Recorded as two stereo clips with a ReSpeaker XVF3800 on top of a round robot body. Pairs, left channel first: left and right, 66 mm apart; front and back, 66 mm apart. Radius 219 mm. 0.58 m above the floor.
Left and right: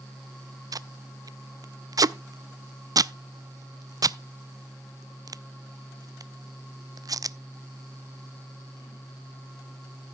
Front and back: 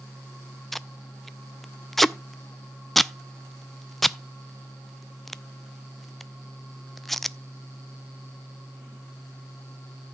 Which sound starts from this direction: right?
Tape being pulled, at 0.7 s.